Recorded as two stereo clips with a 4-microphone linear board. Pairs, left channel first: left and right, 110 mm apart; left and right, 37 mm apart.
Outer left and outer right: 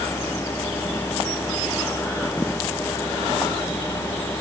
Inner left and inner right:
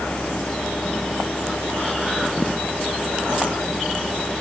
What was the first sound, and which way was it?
Only background noise.